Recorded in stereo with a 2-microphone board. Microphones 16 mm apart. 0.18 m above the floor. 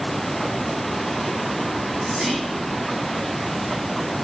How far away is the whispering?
About 1.7 m.